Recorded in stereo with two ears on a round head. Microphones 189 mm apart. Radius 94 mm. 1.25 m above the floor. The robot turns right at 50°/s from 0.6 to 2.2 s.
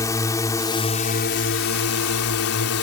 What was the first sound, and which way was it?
A drone, 15° left.